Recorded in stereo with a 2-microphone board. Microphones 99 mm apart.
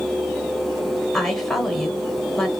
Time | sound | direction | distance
1.1 | a woman speaking | centre (ahead or behind) | 0.9 m